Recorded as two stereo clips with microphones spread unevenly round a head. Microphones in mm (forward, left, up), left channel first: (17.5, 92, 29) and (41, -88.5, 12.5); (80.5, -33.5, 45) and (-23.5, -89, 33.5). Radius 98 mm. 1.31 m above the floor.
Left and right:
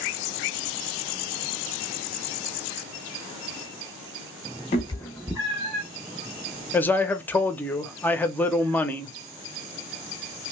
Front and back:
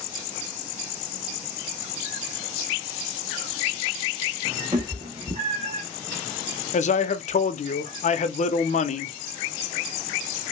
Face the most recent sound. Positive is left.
turn(degrees=15)